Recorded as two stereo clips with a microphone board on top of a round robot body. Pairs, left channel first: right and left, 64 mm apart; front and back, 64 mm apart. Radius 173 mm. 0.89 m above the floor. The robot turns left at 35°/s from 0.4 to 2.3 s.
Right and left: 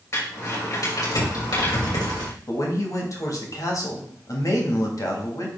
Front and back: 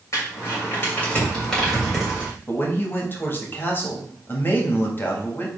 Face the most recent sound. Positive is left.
turn(degrees=-55)